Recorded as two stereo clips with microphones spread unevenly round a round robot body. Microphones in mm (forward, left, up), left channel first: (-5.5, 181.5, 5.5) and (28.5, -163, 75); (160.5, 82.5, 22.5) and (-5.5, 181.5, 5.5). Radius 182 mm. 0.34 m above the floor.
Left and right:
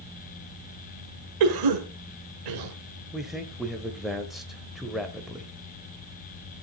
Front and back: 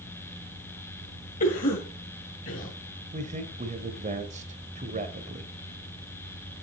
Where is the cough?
80° right, 1.8 m.